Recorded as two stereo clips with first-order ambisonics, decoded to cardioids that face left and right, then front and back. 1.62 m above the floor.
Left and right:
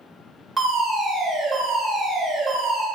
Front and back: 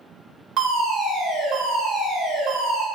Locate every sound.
0.6 s a fire alarm: 160° right, 1.4 m